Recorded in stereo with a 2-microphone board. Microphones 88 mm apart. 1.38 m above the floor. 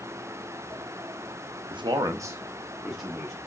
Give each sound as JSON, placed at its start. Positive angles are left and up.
{"t": 1.7, "sound": "a man speaking", "side_deg": -60, "distance_m": 0.5}